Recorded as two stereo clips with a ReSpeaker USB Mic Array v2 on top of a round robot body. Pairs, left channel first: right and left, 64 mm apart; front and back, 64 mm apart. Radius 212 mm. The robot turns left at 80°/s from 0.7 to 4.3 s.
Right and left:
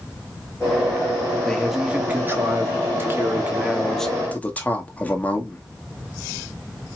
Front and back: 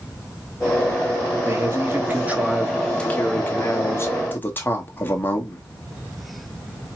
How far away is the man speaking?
About 1.3 m.